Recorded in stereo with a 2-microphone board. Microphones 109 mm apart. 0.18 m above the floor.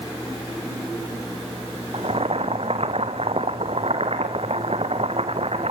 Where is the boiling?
65° right (ahead or behind), 1.7 m.